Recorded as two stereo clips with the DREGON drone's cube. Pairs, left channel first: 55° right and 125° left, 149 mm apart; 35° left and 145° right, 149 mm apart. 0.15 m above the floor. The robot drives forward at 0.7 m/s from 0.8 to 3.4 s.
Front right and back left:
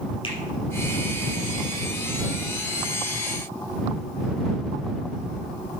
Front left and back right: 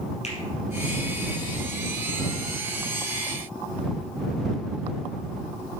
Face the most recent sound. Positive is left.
turn(degrees=-10)